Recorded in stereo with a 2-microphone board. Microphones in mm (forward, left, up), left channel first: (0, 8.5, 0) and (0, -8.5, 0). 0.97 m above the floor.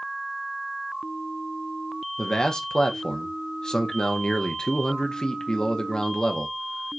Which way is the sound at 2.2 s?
45° left (ahead or behind).